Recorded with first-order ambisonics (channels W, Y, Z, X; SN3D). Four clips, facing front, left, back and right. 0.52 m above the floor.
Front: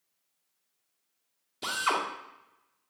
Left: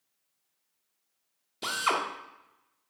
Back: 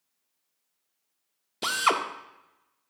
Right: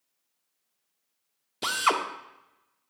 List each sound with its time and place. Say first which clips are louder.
1.6 s a drill: right 3 dB, back 4 dB; 150° right, 0.8 m